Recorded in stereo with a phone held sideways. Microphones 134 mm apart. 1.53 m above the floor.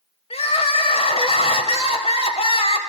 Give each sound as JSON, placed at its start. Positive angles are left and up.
{"t": 0.3, "sound": "crying", "side_deg": 45, "distance_m": 2.0}